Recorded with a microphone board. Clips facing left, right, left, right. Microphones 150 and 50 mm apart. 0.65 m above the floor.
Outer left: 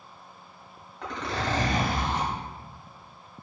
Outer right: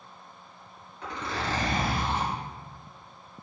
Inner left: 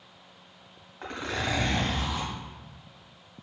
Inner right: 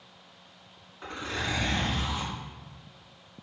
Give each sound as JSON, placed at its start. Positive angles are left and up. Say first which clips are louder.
{"t": 1.0, "sound": "a zipper", "louder": "outer left 2 dB, inner left 2 dB", "side_deg": 75, "distance_m": 1.7}